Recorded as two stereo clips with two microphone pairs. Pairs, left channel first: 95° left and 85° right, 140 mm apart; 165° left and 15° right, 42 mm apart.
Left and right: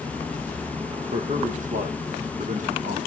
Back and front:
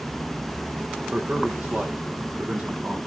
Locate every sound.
1.1 s a man speaking: 65° right, 4 m